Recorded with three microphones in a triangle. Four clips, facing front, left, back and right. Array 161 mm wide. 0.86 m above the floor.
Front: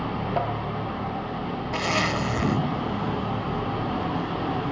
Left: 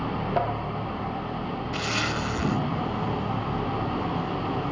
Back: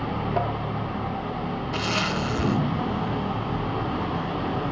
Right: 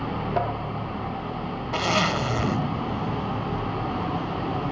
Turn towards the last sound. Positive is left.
turn(degrees=-75)